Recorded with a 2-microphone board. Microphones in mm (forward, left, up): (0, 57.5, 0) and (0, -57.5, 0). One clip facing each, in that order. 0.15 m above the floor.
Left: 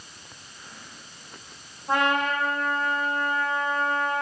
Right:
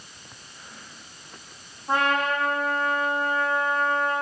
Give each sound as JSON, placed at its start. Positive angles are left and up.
{"t": 1.9, "sound": "a trumpet", "side_deg": -20, "distance_m": 5.0}